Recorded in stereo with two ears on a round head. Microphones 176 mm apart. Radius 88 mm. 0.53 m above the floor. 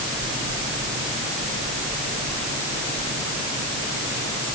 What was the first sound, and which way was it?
Only background noise.